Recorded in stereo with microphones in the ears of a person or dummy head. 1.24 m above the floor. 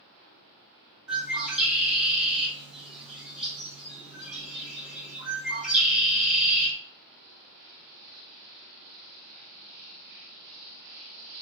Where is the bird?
5° right (ahead or behind), 1.0 m.